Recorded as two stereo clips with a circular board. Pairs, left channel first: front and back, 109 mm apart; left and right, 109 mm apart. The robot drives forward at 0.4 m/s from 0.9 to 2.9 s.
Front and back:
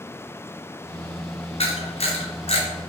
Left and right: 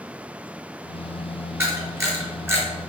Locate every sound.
1.6 s a camera shutter: 20° right, 3.5 m; by 2.6 s 25° right, 3.5 m